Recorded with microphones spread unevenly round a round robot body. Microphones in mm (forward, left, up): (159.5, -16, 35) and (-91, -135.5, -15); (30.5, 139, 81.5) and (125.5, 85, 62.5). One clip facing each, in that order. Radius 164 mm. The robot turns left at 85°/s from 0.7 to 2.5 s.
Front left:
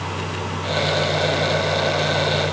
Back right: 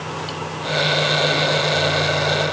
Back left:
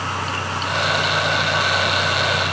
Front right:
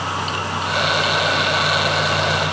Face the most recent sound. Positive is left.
No sound to turn to.